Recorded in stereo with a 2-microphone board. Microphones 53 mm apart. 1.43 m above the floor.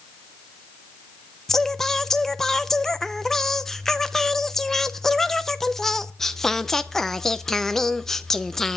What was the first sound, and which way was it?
Singing, 10° left (ahead or behind).